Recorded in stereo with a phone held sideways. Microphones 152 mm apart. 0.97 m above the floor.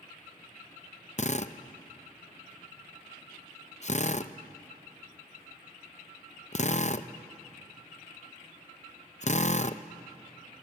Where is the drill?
50° left (ahead or behind), 0.6 m.